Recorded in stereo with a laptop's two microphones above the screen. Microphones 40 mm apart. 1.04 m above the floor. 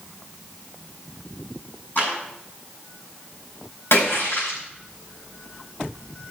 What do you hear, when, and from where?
1.9 s a clap: 50° left (ahead or behind), 7 m
3.9 s a splash: 75° left (ahead or behind), 4.5 m